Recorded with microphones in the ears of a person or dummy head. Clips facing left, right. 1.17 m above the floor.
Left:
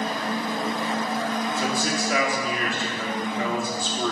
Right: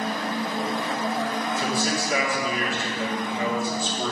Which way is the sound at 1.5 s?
40° left (ahead or behind).